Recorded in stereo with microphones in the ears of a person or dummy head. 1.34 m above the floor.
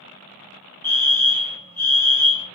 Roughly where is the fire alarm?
Centre.